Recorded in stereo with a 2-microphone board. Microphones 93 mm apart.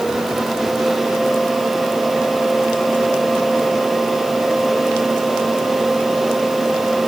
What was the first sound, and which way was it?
Only background noise.